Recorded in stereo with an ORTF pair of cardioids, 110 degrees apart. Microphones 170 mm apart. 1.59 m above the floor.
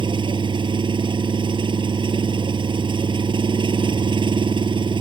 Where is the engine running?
25° right.